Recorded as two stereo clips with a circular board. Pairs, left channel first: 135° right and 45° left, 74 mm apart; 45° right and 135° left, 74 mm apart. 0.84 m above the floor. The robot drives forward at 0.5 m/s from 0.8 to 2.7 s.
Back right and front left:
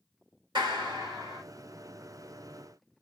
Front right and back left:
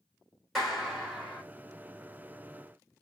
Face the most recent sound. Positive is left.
turn(degrees=60)